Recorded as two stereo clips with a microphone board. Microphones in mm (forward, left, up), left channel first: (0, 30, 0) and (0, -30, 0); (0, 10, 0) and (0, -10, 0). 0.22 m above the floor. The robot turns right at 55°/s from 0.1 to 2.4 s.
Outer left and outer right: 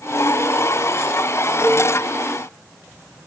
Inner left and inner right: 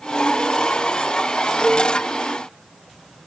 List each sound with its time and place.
1.6 s dishes clattering: 45° right (ahead or behind), 1.2 m